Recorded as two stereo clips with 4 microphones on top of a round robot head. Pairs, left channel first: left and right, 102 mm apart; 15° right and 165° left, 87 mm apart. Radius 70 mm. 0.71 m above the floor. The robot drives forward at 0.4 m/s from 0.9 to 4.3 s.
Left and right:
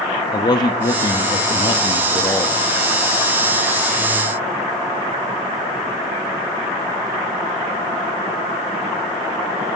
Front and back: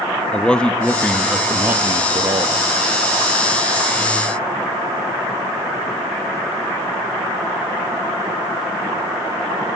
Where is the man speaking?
60° left, 0.6 m; by 2.6 s 145° left, 0.7 m.